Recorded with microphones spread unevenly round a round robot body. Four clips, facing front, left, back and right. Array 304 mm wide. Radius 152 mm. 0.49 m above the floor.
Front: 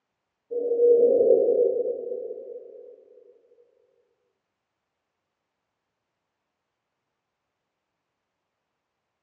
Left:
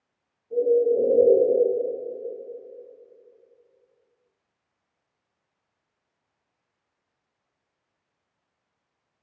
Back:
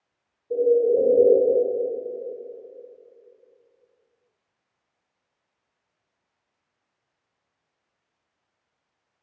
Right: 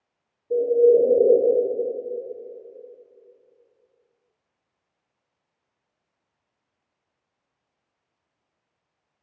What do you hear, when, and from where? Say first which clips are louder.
0.5 s a bird: right 4 dB, even; 115° right, 1.2 m